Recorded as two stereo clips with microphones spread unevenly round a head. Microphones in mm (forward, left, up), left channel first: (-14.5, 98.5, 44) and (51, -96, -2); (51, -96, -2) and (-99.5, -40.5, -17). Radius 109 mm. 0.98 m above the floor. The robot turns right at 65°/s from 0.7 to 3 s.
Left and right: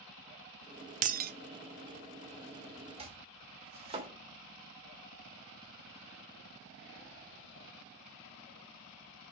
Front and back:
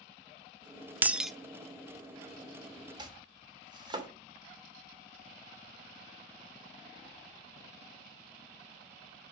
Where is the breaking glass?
125° right, 0.5 m; by 1.3 s 105° right, 0.5 m.